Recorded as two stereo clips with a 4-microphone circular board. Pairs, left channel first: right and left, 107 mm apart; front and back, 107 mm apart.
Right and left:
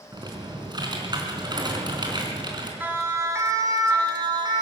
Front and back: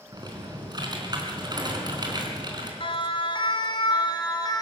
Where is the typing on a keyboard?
135° left, 3.5 m.